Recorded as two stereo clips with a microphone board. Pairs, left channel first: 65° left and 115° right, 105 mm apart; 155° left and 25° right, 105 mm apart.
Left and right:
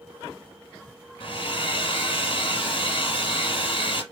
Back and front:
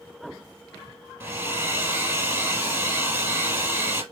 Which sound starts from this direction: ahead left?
A hair dryer, at 1.2 s.